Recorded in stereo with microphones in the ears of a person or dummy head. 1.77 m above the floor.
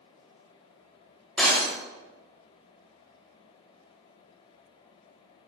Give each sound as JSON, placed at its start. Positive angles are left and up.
{"t": 1.4, "sound": "breaking glass", "side_deg": 0, "distance_m": 2.5}